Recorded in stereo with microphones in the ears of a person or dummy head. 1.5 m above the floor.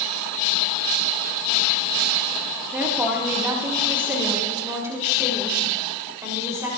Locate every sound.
2.7 s a woman speaking: 15° right (ahead or behind), 2 m; by 6.7 s 20° right (ahead or behind), 4 m